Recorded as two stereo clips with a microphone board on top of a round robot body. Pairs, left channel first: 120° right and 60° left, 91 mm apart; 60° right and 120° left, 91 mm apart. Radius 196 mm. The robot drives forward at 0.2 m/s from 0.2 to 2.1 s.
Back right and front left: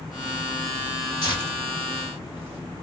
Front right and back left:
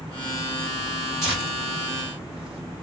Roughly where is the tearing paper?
Behind right.